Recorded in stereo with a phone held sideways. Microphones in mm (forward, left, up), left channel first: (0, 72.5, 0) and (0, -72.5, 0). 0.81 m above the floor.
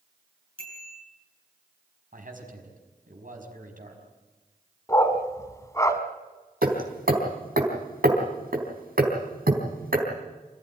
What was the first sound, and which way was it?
A bicycle bell, 40° right (ahead or behind).